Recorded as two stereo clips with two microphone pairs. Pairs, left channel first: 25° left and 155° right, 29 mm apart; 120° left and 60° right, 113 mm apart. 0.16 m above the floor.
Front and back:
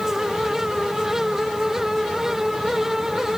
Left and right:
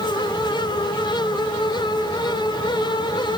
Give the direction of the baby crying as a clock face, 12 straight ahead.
No baby crying in this recording.